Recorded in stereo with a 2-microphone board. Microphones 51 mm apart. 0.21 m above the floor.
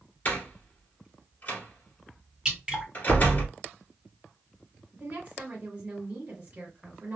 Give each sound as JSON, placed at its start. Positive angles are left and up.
{"t": 0.2, "sound": "a door slam", "side_deg": 35, "distance_m": 1.7}
{"t": 2.5, "sound": "dripping", "side_deg": -15, "distance_m": 2.0}
{"t": 4.9, "sound": "a woman speaking", "side_deg": -35, "distance_m": 1.6}